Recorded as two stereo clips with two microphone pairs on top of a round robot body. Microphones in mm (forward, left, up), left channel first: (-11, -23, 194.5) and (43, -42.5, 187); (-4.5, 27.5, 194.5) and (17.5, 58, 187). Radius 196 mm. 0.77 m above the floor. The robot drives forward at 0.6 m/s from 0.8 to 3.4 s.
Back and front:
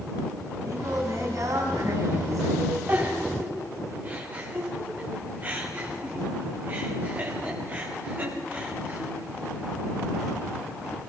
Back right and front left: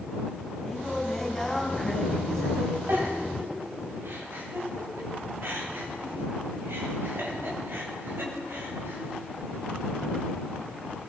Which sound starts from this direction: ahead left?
A giggle, at 2.9 s.